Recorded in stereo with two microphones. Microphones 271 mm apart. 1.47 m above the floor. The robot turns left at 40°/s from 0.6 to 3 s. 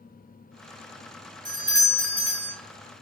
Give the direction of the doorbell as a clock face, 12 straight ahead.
2 o'clock.